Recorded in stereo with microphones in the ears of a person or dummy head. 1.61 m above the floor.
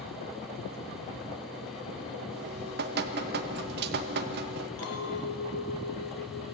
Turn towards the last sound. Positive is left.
turn(degrees=80)